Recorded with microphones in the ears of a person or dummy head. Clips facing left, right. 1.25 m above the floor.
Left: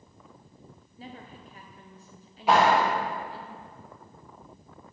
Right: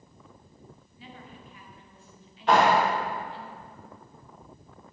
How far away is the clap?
About 1.7 m.